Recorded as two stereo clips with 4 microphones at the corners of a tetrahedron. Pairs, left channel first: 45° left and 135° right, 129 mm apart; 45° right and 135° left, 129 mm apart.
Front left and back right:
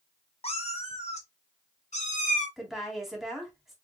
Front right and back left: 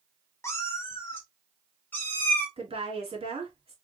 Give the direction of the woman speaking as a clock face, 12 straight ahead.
7 o'clock.